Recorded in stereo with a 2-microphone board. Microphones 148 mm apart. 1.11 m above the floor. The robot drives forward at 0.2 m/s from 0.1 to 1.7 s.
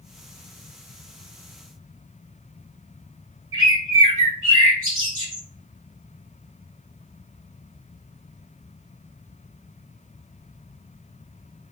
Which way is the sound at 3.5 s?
35° left (ahead or behind).